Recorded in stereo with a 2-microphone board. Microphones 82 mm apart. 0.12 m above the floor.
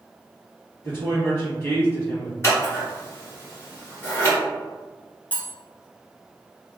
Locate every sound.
0.8 s a woman speaking: 20° left (ahead or behind), 1.9 m
2.4 s scissors: 30° left (ahead or behind), 1.5 m
5.3 s cutlery clinking: 20° left (ahead or behind), 0.8 m